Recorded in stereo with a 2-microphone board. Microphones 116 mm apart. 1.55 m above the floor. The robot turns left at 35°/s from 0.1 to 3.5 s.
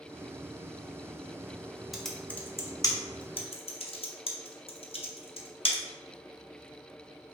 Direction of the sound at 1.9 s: Centre (ahead or behind).